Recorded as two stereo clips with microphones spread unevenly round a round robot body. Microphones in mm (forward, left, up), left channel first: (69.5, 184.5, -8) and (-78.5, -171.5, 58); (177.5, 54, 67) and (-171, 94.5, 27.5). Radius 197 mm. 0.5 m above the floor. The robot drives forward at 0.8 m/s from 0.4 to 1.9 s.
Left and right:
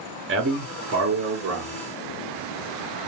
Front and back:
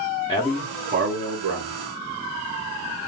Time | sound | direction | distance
0.3 | a man speaking | 80° right | 0.7 m